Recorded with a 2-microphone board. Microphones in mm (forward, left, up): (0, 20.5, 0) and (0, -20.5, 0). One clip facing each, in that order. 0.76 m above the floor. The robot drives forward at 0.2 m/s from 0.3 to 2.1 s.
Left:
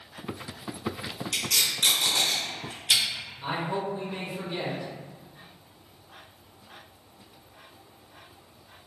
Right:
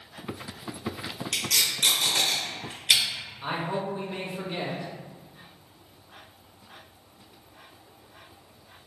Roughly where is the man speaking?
Right.